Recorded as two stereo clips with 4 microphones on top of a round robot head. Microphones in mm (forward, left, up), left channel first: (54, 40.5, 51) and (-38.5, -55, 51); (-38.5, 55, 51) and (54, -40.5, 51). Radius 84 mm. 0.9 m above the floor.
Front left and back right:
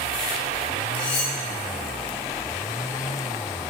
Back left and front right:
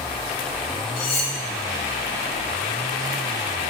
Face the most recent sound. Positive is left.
turn(degrees=110)